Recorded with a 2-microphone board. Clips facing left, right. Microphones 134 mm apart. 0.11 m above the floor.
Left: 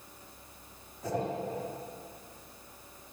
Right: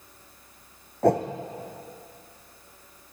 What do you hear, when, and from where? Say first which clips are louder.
1.0 s a whoosh: right 12 dB; 70° right (ahead or behind), 2 m